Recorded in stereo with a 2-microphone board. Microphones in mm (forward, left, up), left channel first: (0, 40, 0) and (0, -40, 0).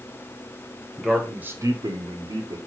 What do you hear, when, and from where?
1.0 s a man speaking: 5° left (ahead or behind), 1.0 m; by 2.6 s 75° right (ahead or behind), 1.1 m